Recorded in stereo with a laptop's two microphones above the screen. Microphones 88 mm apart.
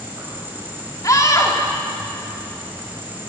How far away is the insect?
About 5 m.